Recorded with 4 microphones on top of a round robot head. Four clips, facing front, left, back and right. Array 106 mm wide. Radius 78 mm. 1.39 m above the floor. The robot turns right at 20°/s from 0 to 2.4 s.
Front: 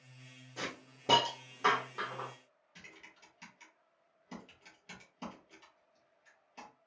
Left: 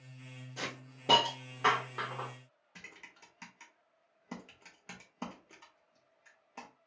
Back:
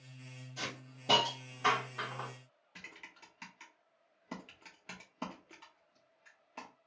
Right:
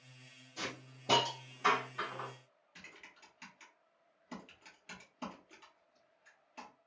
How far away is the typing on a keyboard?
About 0.8 m.